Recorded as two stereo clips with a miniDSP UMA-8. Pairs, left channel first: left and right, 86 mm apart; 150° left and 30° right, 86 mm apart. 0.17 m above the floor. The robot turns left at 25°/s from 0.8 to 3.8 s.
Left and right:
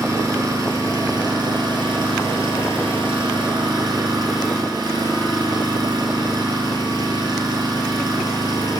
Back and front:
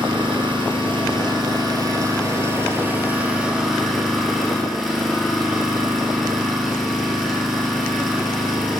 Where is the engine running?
45° right, 2 m; by 8.8 s 120° right, 2 m.